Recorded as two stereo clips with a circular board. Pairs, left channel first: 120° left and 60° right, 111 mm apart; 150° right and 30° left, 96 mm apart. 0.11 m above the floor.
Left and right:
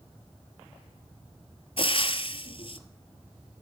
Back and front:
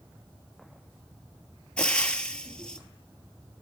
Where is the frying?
135° left, 1.2 m.